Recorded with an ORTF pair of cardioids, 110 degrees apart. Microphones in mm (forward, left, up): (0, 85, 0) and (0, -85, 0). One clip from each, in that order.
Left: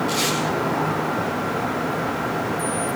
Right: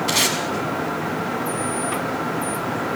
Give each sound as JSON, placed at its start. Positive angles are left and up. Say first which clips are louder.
{"t": 0.1, "sound": "tape being pulled", "louder": "right 6 dB", "azimuth_deg": -70, "distance_m": 6.5}